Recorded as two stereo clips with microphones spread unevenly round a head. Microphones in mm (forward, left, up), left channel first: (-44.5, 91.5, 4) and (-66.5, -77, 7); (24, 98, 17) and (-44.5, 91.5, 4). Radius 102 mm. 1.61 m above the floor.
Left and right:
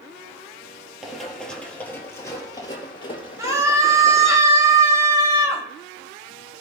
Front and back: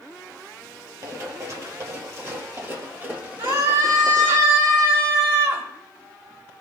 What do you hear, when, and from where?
1.0 s running footsteps: 175° left, 2 m; by 4.4 s 110° left, 2.5 m
3.4 s a scream: 170° right, 2 m